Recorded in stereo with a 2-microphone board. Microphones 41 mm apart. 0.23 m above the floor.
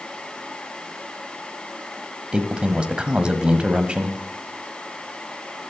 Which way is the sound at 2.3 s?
25° right (ahead or behind).